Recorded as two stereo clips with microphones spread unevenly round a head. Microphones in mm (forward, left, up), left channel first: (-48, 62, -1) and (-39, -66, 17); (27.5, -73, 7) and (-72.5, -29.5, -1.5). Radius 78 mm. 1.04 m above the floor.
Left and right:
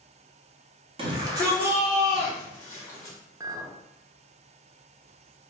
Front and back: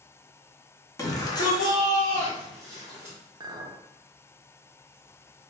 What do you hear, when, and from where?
1.0 s a shout: 65° right, 0.7 m; by 3.2 s 35° left, 1.2 m
3.4 s a clink: 150° right, 0.5 m